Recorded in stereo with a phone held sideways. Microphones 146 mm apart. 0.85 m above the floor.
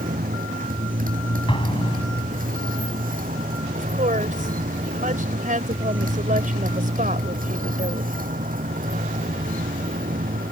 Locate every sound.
0.0 s a motorcycle: 75° right (ahead or behind)
1.5 s an explosion: 35° left (ahead or behind)
3.8 s a woman speaking: 65° right (ahead or behind)